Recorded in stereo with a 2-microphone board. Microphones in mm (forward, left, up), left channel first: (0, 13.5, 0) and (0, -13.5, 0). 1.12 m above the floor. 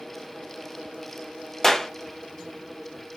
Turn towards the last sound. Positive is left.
turn(degrees=15)  # may be behind; listen again after turning